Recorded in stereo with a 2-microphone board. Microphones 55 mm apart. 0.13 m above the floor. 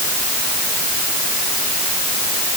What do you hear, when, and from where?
Only background noise.